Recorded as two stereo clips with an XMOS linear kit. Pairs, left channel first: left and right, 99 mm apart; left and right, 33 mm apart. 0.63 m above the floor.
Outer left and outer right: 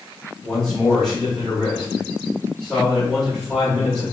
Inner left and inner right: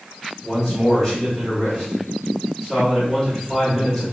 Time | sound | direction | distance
0.4 | a man speaking | 5° left (ahead or behind) | 2.5 m